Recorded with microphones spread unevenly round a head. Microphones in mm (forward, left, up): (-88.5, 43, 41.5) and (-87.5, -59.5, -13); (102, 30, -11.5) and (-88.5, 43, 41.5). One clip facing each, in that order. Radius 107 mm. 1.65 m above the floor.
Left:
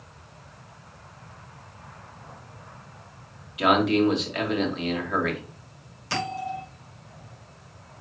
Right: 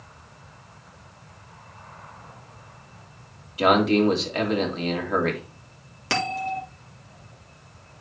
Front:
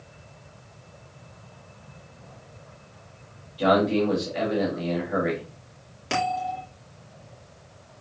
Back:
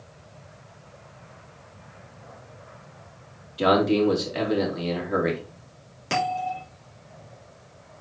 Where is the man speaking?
140° right, 3.5 m.